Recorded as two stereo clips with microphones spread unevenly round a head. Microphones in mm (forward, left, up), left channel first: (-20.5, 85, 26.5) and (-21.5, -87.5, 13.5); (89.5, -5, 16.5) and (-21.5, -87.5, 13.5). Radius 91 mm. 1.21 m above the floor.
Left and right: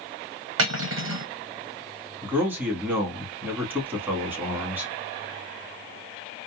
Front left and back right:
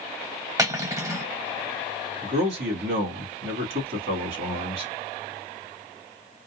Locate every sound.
0.6 s cutlery clinking: 75° right, 0.8 m
2.2 s a man speaking: 170° right, 1.7 m